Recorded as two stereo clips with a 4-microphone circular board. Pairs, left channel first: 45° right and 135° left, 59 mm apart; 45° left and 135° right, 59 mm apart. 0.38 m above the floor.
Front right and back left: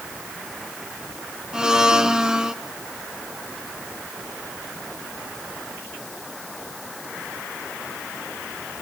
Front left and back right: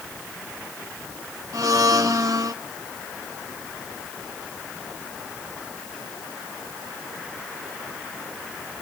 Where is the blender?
145° right, 0.9 m.